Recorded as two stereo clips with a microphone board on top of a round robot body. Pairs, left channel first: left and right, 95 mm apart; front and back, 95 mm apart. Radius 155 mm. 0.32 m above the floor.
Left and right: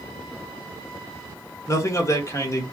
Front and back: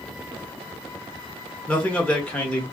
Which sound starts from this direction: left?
A man speaking, at 1.7 s.